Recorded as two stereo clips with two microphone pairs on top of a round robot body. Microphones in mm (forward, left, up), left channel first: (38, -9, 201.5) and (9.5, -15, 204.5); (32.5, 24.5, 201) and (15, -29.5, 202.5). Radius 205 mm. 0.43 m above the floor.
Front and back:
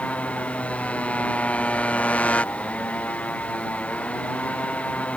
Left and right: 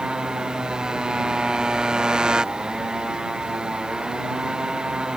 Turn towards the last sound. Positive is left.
turn(degrees=-30)